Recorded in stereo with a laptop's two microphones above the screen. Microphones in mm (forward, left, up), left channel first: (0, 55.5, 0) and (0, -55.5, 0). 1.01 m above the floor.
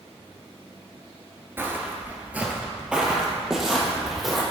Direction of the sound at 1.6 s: 20° right (ahead or behind).